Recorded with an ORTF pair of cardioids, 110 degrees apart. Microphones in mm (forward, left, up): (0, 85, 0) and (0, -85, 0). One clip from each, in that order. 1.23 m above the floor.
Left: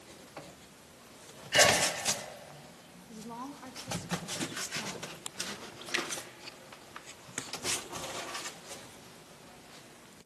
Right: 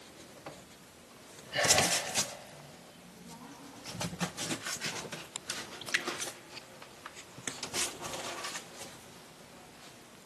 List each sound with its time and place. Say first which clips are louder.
1.5 s a sneeze: left 3 dB; 50° left, 4.5 m
3.1 s a woman speaking: left 9 dB; 70° left, 1.7 m
5.8 s a splash: right 1 dB; 20° right, 1.6 m